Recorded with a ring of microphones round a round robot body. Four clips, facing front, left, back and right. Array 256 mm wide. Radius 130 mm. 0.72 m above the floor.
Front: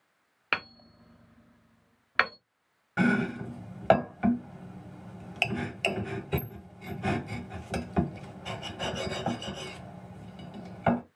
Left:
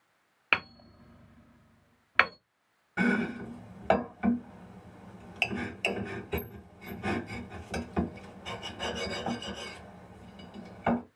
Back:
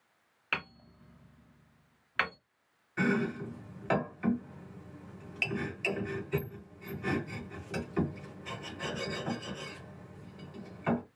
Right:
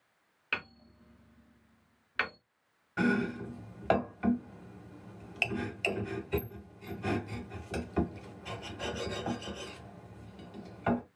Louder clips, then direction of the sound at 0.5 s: Left 7 dB, front 5 dB; 50° left.